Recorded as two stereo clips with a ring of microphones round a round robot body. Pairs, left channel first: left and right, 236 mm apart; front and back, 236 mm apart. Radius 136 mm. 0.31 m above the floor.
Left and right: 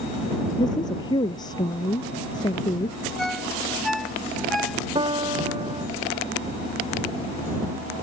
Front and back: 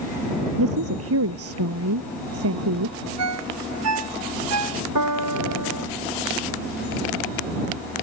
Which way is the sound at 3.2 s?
Straight behind.